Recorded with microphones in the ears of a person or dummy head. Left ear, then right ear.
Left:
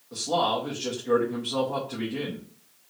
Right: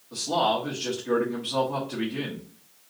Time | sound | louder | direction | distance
0.1 | a man speaking | right 1 dB | 5° left (ahead or behind) | 1.0 m